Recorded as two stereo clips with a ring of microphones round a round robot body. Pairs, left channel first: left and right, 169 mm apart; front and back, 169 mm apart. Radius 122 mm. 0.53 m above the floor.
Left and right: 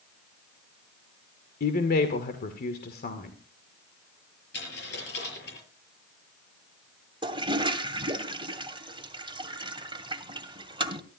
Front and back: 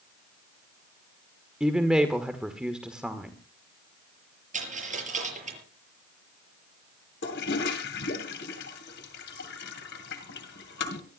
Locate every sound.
1.6 s a woman speaking: 95° left, 1.8 m
4.5 s a dropped coin: 135° left, 6 m
7.2 s a toilet flushing: 30° right, 2 m